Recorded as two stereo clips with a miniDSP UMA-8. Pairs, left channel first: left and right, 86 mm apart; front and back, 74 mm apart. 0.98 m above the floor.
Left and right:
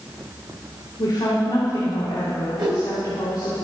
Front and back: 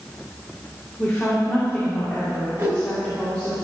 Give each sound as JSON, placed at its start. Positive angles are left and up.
{"t": 1.0, "sound": "a woman speaking", "azimuth_deg": 60, "distance_m": 2.5}
{"t": 2.6, "sound": "a whoosh", "azimuth_deg": -120, "distance_m": 3.0}